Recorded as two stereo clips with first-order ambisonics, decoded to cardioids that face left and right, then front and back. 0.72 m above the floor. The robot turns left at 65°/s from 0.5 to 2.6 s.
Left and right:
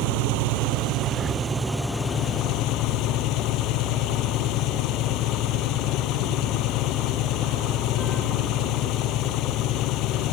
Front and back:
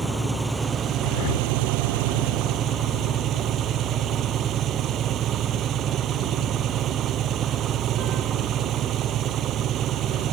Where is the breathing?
10° left; by 1.5 s 20° right.